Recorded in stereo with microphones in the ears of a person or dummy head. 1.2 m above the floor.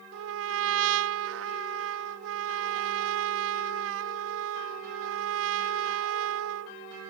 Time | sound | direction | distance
0.1 | a trumpet | 65° right (ahead or behind) | ?